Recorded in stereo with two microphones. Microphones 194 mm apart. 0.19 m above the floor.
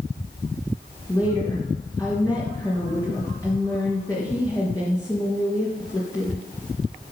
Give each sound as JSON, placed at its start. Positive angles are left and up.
{"t": 1.1, "sound": "a woman speaking", "side_deg": 15, "distance_m": 2.5}